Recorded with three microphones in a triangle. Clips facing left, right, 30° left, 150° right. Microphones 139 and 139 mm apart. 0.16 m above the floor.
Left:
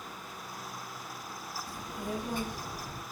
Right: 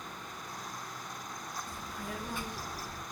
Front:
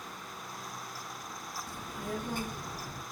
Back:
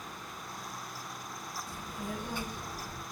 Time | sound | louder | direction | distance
1.7 | a child speaking | left 8 dB, front 2 dB | 15° left | 1.2 m